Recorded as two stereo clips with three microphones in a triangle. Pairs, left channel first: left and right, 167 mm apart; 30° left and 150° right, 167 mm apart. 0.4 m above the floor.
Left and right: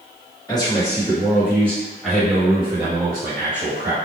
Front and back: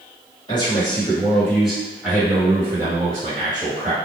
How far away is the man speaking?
About 1.6 m.